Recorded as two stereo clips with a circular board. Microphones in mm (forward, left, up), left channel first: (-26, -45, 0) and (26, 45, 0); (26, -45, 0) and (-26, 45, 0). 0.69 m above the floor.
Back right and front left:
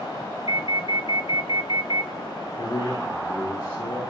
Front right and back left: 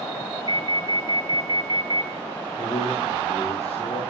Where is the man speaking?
55° right, 9.5 m.